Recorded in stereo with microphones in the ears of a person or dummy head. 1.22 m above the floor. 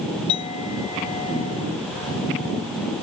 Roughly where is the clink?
Left.